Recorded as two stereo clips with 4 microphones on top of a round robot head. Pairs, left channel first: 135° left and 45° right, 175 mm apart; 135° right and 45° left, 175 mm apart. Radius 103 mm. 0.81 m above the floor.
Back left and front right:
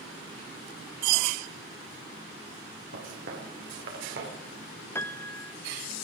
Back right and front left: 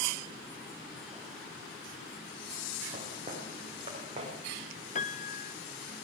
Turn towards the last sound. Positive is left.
turn(degrees=-155)